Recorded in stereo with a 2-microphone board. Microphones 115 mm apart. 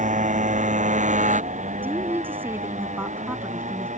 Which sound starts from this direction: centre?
A woman speaking, at 1.8 s.